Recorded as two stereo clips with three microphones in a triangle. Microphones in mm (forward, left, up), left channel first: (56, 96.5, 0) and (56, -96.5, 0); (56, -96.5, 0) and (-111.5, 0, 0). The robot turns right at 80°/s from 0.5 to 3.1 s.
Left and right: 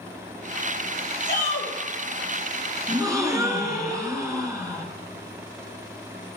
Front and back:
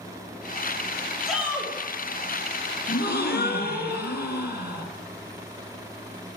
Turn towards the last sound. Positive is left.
turn(degrees=-20)